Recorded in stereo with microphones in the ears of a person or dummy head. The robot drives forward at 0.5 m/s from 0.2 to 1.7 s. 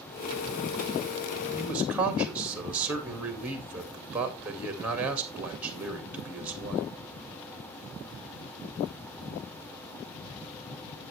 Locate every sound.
1.6 s a man speaking: 10° right (ahead or behind), 2.0 m